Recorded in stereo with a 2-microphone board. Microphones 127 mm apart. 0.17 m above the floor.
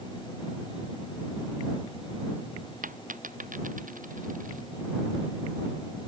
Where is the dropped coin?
85° right.